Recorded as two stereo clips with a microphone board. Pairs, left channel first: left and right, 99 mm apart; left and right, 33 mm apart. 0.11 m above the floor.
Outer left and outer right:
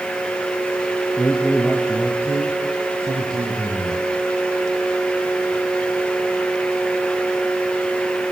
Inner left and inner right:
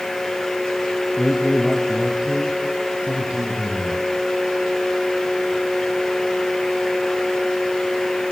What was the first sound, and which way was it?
A man speaking, 5° right (ahead or behind).